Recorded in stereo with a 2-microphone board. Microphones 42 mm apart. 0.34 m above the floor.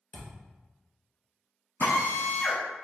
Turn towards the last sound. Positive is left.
turn(degrees=75)  # may be behind; listen again after turning